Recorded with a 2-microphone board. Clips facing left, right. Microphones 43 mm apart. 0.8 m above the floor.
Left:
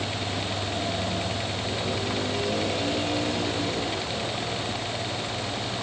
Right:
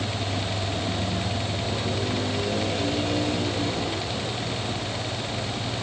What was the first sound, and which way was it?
Only background noise.